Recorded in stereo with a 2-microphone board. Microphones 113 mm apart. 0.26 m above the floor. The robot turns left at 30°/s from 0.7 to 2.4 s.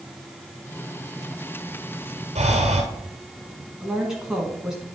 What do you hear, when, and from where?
2.4 s breathing: 85° right, 1.5 m
3.8 s a woman speaking: 5° right (ahead or behind), 2.5 m